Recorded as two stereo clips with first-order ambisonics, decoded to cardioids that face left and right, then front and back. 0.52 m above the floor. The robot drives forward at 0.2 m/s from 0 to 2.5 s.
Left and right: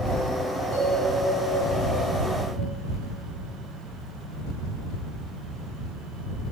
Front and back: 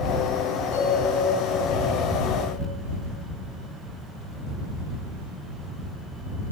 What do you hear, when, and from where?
0.7 s a bell: 35° left, 2.5 m; by 2.7 s 40° left, 2 m